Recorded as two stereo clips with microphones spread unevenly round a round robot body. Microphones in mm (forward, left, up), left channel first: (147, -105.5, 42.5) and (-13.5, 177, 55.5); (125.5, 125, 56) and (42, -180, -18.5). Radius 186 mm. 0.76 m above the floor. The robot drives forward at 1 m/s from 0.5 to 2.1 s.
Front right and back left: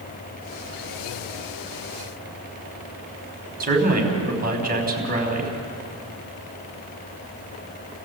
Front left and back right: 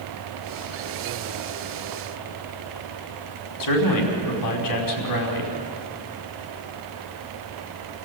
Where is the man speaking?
55° left, 5 m.